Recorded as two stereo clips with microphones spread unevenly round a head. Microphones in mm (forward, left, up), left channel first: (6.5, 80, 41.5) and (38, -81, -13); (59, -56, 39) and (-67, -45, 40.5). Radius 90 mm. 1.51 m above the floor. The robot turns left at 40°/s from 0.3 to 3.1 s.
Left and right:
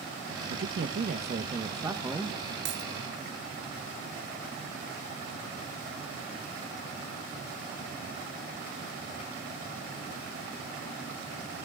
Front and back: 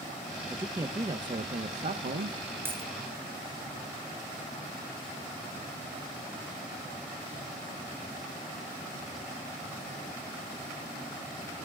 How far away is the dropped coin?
About 3 m.